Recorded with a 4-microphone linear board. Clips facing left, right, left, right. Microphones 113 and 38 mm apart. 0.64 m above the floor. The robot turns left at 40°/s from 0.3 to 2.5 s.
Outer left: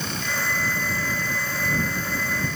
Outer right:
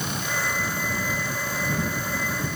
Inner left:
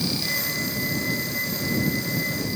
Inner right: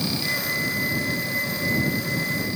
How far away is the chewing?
I don't hear chewing.